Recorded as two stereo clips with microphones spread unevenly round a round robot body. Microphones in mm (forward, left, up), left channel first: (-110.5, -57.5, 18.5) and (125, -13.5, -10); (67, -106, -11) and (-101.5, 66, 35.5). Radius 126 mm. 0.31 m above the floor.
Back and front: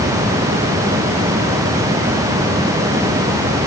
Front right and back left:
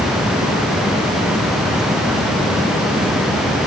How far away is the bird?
I don't hear a bird.